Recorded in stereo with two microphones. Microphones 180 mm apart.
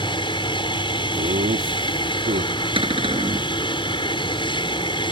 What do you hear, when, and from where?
0.0 s an aircraft: 25° left (ahead or behind)
1.1 s laughter: 55° right (ahead or behind)
2.8 s a cupboard door: 30° right (ahead or behind)